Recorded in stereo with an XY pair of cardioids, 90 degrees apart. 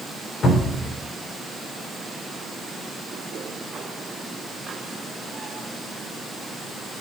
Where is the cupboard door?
60° left, 4 m.